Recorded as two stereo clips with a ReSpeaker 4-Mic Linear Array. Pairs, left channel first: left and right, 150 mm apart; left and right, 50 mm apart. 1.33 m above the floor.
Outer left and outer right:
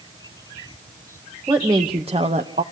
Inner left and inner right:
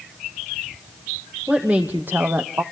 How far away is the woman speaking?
About 0.9 m.